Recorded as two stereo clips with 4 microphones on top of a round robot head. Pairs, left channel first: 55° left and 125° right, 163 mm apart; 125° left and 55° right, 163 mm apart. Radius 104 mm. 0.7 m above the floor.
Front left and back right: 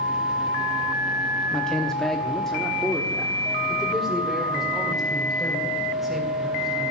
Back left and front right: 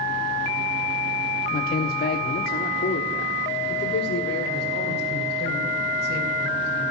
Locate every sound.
1.5 s a man speaking: 140° left, 0.9 m; by 6.9 s 145° left, 3.5 m